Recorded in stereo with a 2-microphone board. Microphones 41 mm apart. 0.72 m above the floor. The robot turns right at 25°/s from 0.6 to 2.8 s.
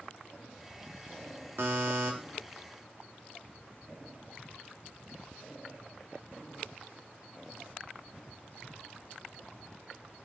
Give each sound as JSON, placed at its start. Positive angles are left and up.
{"t": 1.6, "sound": "a buzzer", "side_deg": -55, "distance_m": 0.8}